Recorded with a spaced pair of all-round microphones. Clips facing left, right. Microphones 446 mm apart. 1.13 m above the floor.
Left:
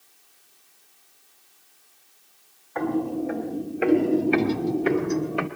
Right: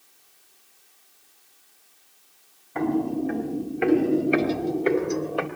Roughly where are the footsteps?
Right.